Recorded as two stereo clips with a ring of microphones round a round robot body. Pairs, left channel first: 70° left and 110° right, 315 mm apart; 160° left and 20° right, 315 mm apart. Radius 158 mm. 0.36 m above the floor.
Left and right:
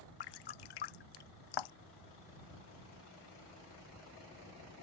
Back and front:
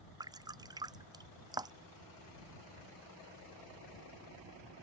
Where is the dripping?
55° left.